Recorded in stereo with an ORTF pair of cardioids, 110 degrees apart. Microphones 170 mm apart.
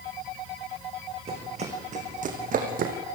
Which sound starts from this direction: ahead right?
Running footsteps, at 1.3 s.